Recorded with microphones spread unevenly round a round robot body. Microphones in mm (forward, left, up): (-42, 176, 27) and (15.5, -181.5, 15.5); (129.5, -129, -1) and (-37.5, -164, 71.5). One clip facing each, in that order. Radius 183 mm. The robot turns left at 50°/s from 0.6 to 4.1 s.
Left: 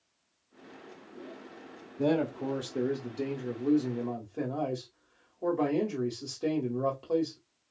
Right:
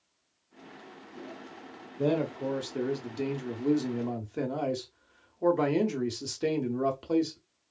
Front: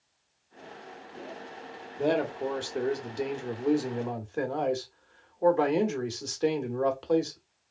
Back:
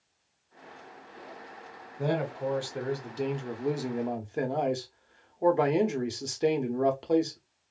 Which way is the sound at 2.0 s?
30° left.